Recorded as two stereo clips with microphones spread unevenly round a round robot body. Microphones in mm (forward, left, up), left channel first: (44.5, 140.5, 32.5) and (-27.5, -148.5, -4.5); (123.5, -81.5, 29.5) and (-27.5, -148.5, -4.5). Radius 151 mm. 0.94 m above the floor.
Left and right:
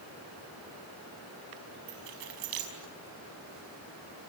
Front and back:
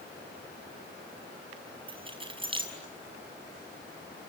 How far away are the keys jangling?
About 6 m.